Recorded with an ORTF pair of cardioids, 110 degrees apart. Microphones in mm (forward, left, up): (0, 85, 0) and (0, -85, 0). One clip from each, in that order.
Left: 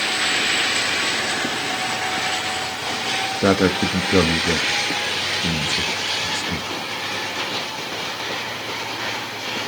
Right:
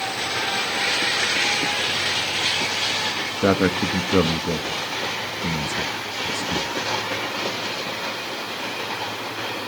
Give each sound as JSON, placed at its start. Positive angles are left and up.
{"t": 3.4, "sound": "a man speaking", "azimuth_deg": 10, "distance_m": 1.2}